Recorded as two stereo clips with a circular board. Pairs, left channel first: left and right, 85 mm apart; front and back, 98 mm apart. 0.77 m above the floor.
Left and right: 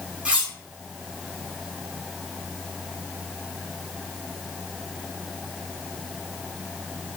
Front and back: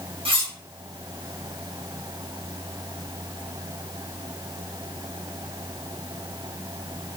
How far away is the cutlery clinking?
About 0.9 m.